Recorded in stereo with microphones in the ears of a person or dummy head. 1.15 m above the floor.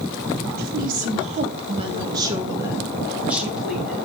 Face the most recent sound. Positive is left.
turn(degrees=0)  # may be behind; listen again after turning